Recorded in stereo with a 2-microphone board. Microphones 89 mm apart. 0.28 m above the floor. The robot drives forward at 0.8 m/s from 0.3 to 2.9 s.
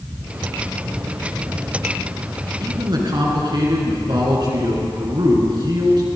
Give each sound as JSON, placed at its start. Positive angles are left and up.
{"t": 2.6, "sound": "a man speaking", "side_deg": -55, "distance_m": 3.5}